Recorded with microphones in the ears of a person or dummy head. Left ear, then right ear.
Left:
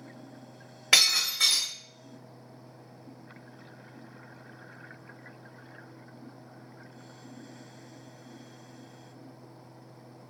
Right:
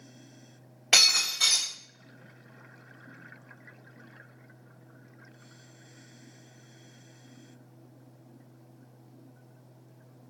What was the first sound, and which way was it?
Breaking glass, 20° left (ahead or behind).